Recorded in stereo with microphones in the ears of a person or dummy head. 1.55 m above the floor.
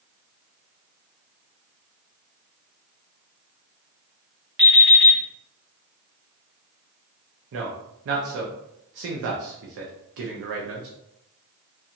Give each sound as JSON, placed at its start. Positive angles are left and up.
{"t": 4.6, "sound": "an alarm clock", "side_deg": -5, "distance_m": 0.9}
{"t": 7.5, "sound": "a man speaking", "side_deg": -65, "distance_m": 0.6}